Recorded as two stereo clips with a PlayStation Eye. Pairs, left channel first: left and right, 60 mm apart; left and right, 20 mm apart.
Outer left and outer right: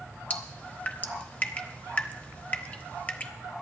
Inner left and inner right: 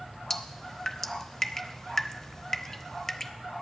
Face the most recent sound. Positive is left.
turn(degrees=25)  # may be behind; listen again after turning